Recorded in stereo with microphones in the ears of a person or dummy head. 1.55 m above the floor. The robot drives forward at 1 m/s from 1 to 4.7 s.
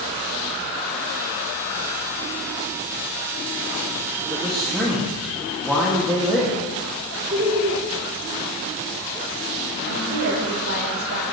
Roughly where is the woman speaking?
Right.